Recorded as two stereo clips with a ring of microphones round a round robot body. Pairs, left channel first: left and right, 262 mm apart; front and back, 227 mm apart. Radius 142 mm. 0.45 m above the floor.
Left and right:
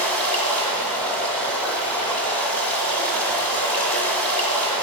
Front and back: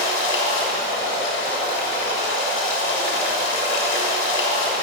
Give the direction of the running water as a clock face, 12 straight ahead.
12 o'clock.